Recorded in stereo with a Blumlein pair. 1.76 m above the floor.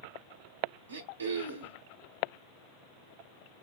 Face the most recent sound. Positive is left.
turn(degrees=-65)